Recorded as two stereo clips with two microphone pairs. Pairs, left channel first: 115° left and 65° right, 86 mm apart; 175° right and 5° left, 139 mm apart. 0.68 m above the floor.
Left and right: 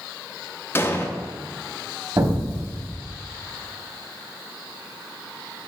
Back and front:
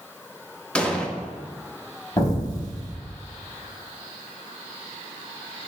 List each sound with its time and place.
0.8 s an explosion: 110° left, 0.9 m
2.2 s an explosion: 115° right, 1.5 m